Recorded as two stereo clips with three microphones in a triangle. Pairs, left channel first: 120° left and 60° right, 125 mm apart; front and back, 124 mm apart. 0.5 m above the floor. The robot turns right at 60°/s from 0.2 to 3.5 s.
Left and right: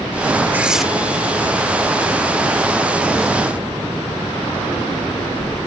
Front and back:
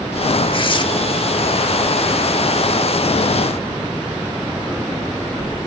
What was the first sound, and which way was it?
Tearing paper, 10° left.